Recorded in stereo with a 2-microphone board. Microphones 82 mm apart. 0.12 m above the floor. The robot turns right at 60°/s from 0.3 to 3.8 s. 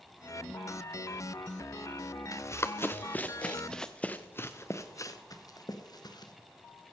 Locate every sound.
2.3 s running footsteps: 40° left (ahead or behind), 0.9 m; by 6.3 s 55° left (ahead or behind), 1.7 m